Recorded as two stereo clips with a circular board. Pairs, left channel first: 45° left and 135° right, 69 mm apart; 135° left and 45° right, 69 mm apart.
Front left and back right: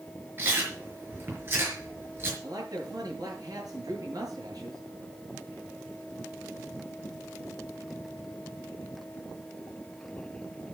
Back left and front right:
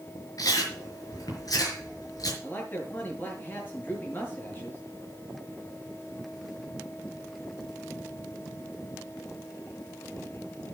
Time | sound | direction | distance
0.4 | chewing | 165° left | 5.5 m
2.4 | a man speaking | 165° right | 7.5 m